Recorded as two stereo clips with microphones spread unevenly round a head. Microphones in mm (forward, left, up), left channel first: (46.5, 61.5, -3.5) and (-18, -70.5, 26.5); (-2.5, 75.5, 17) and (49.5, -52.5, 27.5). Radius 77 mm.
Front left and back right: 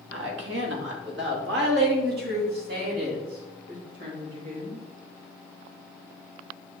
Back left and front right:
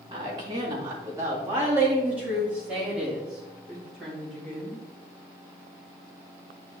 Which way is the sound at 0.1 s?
130° right.